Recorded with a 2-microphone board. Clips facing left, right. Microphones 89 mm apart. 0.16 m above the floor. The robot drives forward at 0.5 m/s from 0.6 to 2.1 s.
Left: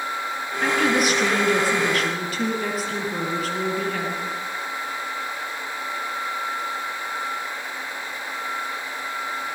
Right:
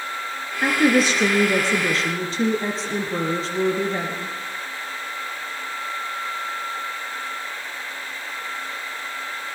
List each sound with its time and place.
0.6 s a woman speaking: 30° right (ahead or behind), 3.5 m; by 4.4 s 25° right (ahead or behind), 4.5 m